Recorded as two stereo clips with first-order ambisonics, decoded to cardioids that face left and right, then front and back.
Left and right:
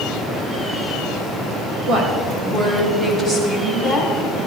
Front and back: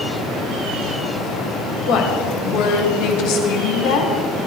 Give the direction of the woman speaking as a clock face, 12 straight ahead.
1 o'clock.